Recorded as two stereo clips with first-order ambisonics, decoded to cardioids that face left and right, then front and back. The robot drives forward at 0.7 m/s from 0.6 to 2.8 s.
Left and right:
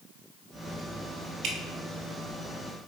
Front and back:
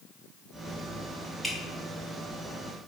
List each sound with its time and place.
1.4 s dripping: 90° right, 1.0 m; by 1.6 s 95° right, 1.0 m